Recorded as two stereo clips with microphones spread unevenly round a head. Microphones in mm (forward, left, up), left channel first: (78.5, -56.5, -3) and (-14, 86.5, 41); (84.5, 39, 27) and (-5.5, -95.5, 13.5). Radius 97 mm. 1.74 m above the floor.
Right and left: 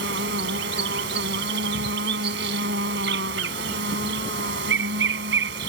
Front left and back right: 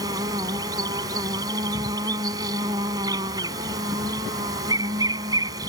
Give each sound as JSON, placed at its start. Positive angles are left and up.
{"t": 0.0, "sound": "an insect", "azimuth_deg": 160}